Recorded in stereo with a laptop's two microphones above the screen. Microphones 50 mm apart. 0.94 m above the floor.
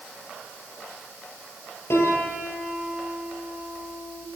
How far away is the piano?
About 9 m.